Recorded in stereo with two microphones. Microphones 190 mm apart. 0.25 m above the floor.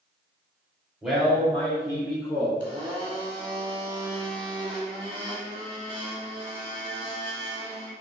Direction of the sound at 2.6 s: 25° right (ahead or behind).